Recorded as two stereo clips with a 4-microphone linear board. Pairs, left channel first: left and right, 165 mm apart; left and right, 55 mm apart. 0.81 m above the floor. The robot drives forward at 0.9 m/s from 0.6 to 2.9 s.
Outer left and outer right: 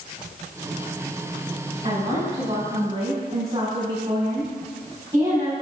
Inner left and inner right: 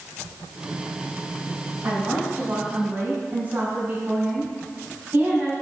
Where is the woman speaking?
40° right (ahead or behind), 5 m; by 5.5 s 35° right (ahead or behind), 5.5 m.